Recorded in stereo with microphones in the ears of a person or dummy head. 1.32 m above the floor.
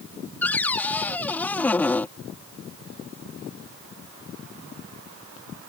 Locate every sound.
0.4 s a cupboard door: 10° left (ahead or behind)